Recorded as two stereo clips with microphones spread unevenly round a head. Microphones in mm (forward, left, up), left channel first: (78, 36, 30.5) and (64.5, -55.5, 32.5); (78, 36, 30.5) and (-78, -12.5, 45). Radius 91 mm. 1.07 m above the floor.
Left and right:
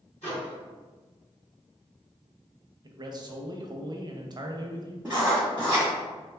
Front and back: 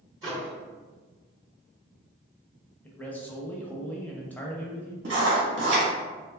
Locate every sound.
0.2 s a microwave: 130° left, 1.8 m
2.8 s a man speaking: 60° right, 0.5 m
5.0 s writing: straight behind, 1.1 m